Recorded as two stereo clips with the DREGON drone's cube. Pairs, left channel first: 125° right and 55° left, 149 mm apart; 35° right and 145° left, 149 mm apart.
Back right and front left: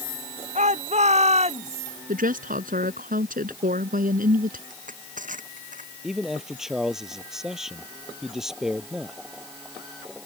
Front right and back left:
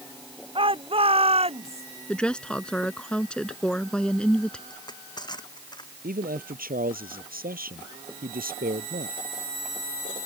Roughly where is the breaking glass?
No breaking glass in this recording.